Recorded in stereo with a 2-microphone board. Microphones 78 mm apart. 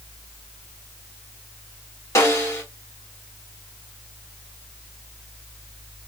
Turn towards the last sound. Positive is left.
turn(degrees=40)  # may be behind; listen again after turning